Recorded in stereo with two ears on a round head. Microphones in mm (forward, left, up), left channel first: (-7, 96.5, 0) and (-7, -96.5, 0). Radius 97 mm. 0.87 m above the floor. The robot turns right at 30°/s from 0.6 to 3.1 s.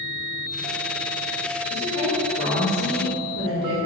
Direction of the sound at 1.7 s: 90° left.